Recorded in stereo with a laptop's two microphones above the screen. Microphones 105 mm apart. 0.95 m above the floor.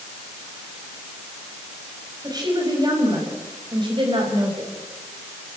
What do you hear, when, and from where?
2.2 s a woman speaking: 40° right (ahead or behind), 5 m; by 4.8 s 55° right (ahead or behind), 4.5 m